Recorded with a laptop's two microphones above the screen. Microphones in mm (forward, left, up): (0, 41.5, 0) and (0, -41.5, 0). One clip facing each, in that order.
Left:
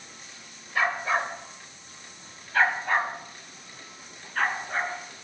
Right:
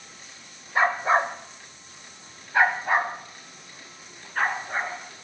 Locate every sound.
0.8 s a dog barking: 30° right (ahead or behind), 0.9 m; by 5.0 s 5° right (ahead or behind), 3.5 m